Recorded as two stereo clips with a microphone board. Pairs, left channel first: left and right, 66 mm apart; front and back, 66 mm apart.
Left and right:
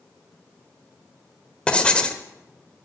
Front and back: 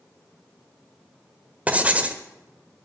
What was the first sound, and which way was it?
Writing, 145° left.